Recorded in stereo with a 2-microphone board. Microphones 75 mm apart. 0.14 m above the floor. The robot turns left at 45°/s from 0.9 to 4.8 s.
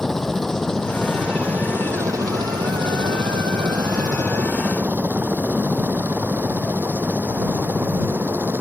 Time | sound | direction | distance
0.0 | a helicopter | 5° left (ahead or behind) | ?